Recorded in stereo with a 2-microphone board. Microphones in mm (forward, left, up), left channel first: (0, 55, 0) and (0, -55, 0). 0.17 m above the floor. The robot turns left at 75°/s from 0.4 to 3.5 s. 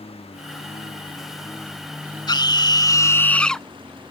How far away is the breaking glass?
No breaking glass in this recording.